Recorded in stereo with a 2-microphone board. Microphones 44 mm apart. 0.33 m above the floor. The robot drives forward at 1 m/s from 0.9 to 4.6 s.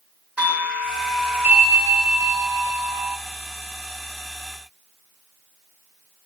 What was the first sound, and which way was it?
A doorbell, 25° right (ahead or behind).